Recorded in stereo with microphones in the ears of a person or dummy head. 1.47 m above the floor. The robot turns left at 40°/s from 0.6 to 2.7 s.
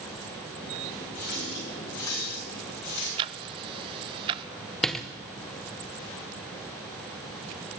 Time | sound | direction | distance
1.1 | a running tap | 40° left (ahead or behind) | 8.5 m
3.2 | ticking | 30° right (ahead or behind) | 0.6 m
4.8 | a door slam | 5° left (ahead or behind) | 1.0 m